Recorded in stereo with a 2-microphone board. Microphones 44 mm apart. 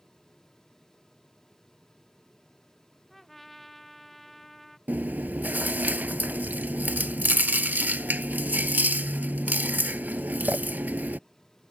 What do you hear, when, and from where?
3.1 s a trumpet: 5° left (ahead or behind)
4.9 s chewing: 45° right (ahead or behind)